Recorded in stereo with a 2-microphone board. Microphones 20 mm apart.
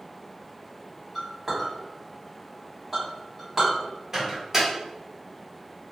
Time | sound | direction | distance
1.1 | a clink | 25° right (ahead or behind) | 1.5 m
4.1 | a microwave | 25° right (ahead or behind) | 1.2 m